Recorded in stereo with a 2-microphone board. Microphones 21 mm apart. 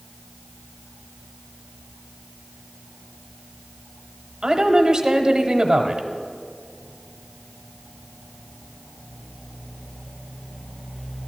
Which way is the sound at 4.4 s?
40° right (ahead or behind).